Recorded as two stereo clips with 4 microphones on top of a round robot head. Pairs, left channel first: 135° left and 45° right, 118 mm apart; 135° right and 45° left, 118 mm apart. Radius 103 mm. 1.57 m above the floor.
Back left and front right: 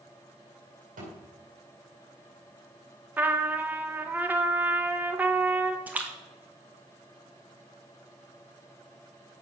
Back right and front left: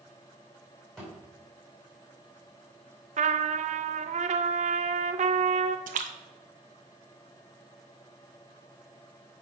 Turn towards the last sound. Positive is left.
turn(degrees=30)